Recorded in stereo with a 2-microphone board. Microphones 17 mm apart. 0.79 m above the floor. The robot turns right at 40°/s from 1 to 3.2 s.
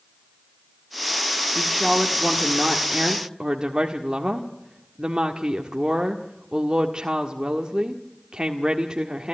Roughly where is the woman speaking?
Behind.